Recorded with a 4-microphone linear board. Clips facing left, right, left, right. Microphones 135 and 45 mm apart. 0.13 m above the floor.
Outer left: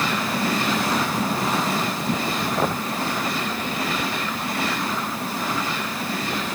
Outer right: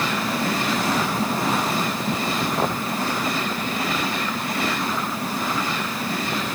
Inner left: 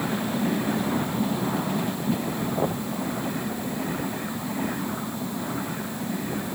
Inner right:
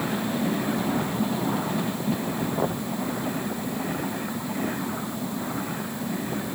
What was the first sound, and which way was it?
Only background noise.